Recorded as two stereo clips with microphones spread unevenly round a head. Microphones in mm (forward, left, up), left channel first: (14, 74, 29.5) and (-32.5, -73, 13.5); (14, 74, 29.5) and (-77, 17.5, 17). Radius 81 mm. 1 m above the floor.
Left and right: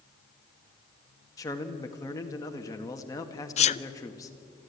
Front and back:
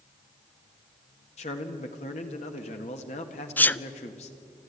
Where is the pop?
I don't hear a pop.